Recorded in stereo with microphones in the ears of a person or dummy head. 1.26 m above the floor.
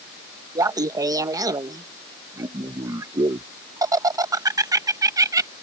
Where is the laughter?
15° right (ahead or behind).